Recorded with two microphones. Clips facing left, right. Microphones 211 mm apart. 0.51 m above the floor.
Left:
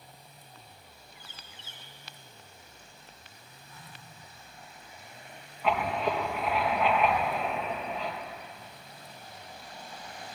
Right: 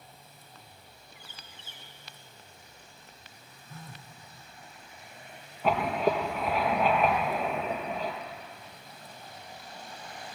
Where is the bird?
55° right (ahead or behind), 4.5 m.